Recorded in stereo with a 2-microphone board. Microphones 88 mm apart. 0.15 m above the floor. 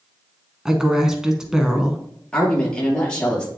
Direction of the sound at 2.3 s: 10° left (ahead or behind).